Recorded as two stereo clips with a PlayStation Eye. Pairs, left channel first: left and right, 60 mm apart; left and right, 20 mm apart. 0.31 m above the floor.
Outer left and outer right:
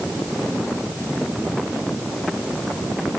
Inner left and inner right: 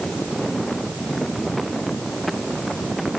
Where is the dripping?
I don't hear dripping.